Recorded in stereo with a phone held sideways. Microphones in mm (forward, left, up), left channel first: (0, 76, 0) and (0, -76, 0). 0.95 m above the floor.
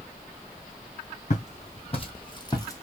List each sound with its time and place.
1.3 s footsteps: 50° left (ahead or behind), 2.5 m; by 2.8 s 15° left (ahead or behind), 1.2 m